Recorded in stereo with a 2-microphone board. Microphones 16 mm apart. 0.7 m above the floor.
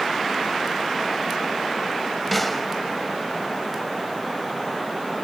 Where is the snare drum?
5° left (ahead or behind), 1.0 m.